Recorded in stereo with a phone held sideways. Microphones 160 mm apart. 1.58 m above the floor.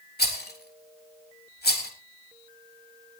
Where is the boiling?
No boiling in this recording.